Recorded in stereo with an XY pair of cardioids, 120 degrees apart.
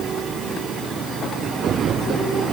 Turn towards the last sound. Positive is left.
No sound to turn to.